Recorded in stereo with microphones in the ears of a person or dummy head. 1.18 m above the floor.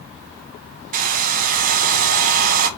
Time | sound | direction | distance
0.9 | a hair dryer | 50° right (ahead or behind) | 1.4 m